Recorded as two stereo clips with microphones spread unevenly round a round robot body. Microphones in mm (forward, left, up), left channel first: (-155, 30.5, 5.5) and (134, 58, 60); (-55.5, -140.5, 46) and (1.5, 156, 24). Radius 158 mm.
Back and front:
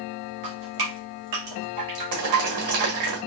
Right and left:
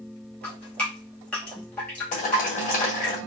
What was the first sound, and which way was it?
Dripping, 15° right.